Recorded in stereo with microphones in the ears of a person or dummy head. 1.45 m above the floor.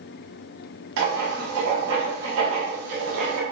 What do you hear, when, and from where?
1.0 s writing: 80° right, 0.7 m